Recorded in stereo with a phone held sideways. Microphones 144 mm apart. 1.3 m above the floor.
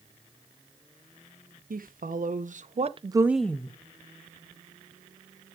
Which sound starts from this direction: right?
A woman speaking, at 1.7 s.